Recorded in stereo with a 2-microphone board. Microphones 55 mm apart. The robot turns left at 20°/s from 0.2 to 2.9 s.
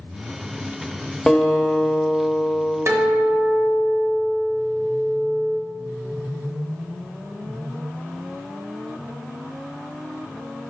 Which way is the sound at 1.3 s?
10° left (ahead or behind).